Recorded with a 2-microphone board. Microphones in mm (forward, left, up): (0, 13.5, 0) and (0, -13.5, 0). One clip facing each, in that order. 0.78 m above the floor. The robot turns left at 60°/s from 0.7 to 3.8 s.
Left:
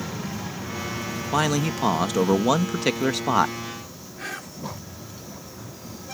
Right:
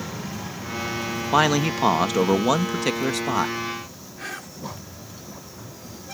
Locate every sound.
1.3 s a man speaking: 20° right (ahead or behind); by 3.6 s 20° left (ahead or behind)
4.2 s whispering: centre (ahead or behind)